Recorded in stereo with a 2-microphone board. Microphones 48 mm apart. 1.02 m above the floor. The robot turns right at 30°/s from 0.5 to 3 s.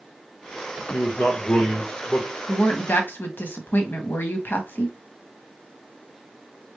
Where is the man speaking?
100° left, 1.3 m; by 2.3 s 140° left, 1.3 m.